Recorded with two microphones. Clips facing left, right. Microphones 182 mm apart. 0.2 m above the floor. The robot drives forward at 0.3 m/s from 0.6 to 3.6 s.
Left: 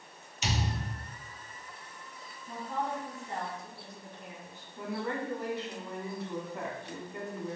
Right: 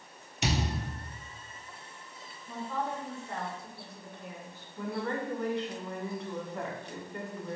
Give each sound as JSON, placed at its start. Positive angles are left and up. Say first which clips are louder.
{"t": 0.4, "sound": "a thud", "louder": "right 3 dB", "side_deg": -65, "distance_m": 0.9}
{"t": 2.5, "sound": "a woman speaking", "louder": "even", "side_deg": 20, "distance_m": 1.5}
{"t": 4.8, "sound": "a woman speaking", "louder": "right 1 dB", "side_deg": 5, "distance_m": 1.3}